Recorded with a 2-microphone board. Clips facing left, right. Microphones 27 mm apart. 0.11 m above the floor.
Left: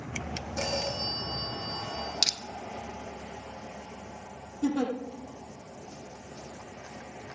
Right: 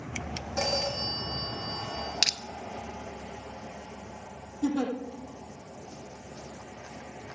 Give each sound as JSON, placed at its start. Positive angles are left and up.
{"t": 0.6, "sound": "a phone ringing", "side_deg": -40, "distance_m": 4.0}
{"t": 2.2, "sound": "crushing", "side_deg": -40, "distance_m": 0.5}
{"t": 4.6, "sound": "a giggle", "side_deg": 15, "distance_m": 3.0}